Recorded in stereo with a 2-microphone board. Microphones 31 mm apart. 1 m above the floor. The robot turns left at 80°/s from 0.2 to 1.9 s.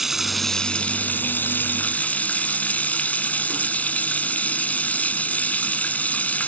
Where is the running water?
175° right; by 6.5 s 50° left.